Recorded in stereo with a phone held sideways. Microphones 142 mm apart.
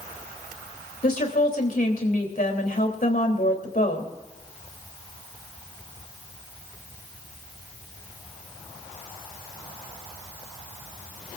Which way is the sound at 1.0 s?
70° left (ahead or behind).